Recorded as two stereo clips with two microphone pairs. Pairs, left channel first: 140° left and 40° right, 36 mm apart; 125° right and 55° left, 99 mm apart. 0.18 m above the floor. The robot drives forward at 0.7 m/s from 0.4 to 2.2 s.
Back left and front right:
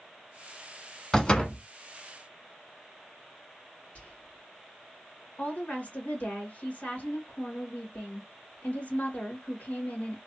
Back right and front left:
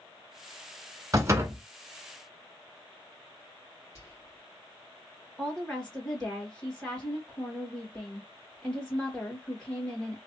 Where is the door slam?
80° left, 1.0 m; by 1.6 s 110° left, 1.0 m.